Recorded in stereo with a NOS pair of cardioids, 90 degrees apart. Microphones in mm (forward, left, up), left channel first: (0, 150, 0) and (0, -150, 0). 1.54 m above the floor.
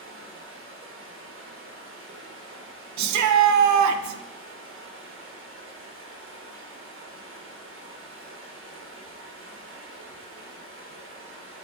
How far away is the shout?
About 0.6 m.